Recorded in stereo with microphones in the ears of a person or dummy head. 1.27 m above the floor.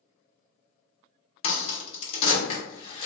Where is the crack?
30° left (ahead or behind), 1.0 m.